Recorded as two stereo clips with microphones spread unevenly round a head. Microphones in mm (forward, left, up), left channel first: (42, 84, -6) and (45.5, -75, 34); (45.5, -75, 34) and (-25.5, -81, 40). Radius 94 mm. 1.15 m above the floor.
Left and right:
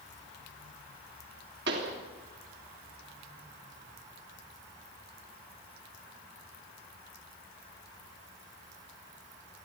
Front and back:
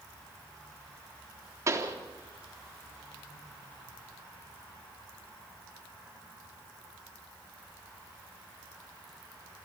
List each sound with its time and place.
1.7 s a pop: 130° right, 3.5 m